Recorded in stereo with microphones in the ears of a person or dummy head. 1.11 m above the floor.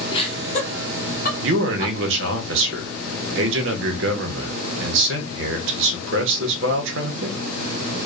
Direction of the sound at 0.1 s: 30° left (ahead or behind).